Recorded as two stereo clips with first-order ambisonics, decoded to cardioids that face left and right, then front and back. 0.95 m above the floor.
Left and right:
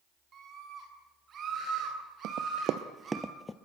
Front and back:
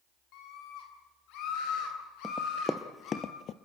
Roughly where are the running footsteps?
Right.